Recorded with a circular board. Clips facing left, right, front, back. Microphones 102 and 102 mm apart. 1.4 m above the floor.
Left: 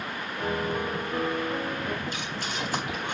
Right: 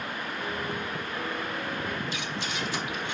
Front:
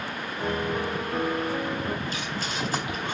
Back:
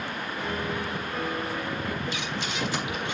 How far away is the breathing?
About 4.5 m.